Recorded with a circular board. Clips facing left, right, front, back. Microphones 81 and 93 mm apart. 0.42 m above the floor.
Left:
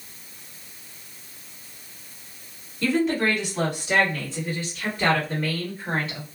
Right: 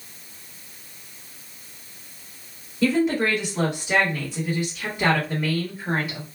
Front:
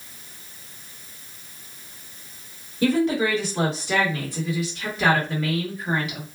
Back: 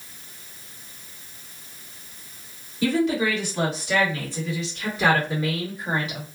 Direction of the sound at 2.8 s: 15° right.